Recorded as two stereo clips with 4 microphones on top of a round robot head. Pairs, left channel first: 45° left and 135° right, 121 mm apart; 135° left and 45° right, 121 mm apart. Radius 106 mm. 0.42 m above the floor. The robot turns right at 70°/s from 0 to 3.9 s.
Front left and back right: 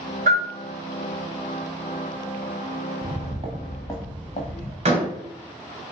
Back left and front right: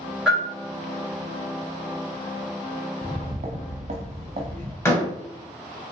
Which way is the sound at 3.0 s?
125° right.